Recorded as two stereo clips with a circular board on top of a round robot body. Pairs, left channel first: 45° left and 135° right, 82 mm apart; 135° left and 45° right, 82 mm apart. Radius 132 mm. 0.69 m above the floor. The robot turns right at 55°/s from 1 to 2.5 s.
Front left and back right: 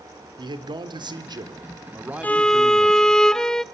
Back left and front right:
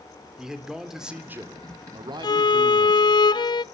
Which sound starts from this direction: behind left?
A violin, at 2.2 s.